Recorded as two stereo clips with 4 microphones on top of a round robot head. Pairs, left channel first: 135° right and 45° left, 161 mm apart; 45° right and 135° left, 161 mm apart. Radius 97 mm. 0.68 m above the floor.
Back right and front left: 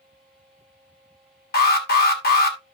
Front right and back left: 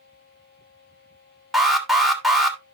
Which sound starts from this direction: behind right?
An alarm, at 1.5 s.